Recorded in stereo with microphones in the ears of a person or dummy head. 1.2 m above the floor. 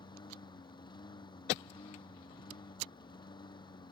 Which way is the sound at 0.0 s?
20° left (ahead or behind).